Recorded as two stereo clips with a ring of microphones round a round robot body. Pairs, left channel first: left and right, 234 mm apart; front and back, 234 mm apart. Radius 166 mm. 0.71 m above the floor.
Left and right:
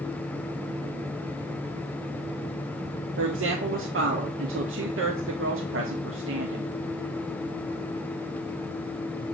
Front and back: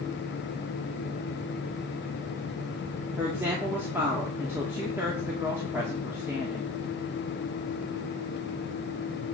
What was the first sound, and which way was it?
A woman speaking, 100° right.